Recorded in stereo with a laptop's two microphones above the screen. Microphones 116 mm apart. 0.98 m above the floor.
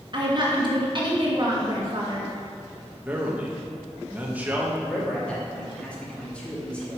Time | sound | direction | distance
0.1 | a woman speaking | 45° right (ahead or behind) | 1.2 m
3.0 | a man speaking | 15° right (ahead or behind) | 0.9 m
4.8 | a man speaking | 10° left (ahead or behind) | 2 m